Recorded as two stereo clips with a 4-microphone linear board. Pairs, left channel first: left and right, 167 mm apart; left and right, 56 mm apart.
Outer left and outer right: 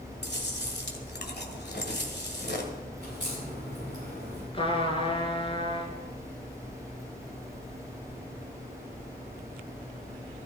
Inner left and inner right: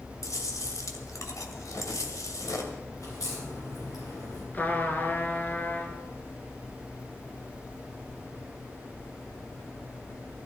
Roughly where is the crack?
Left.